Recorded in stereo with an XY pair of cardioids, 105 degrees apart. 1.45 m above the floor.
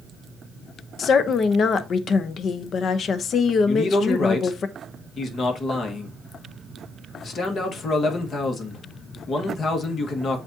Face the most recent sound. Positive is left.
turn(degrees=50)